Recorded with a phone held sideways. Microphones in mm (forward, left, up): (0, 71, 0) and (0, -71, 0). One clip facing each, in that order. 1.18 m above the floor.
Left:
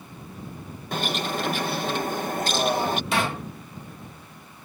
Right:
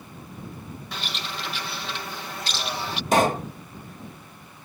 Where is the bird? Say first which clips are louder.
Left 10 dB; 50° left (ahead or behind).